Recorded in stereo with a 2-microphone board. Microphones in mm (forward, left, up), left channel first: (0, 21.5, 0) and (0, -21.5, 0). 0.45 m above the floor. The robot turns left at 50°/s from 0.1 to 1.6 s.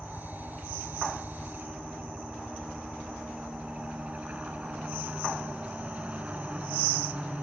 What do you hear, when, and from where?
0.0 s a helicopter: 70° right; by 7.4 s 145° right